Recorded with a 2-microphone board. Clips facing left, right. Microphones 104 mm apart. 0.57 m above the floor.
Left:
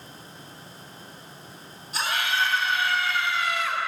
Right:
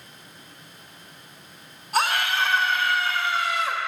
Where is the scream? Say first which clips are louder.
Right 4 dB; 60° right (ahead or behind), 2.0 m; by 3.8 s 30° right (ahead or behind), 1.3 m.